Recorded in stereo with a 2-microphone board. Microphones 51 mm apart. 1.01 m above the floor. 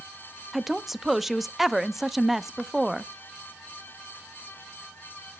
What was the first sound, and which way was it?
A woman speaking, 5° right (ahead or behind).